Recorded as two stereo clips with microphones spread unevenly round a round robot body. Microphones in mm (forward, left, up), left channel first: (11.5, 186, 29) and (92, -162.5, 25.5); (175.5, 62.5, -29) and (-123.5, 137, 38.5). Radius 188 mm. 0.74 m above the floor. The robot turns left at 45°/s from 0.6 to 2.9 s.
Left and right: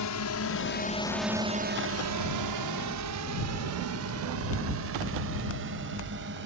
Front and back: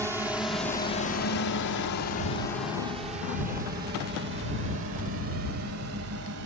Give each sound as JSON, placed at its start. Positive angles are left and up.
{"t": 0.0, "sound": "a drone", "azimuth_deg": 80}